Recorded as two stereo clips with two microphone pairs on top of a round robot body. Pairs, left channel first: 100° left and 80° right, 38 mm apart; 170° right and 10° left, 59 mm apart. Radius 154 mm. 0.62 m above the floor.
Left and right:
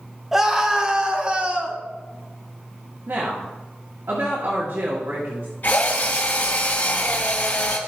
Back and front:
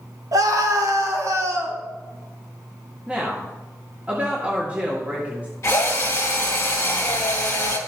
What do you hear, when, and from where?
0.3 s a scream: 5° left, 1.9 m; by 1.8 s 20° right, 2 m
3.1 s a woman speaking: 55° right, 1.8 m
5.6 s a drill: 145° left, 3 m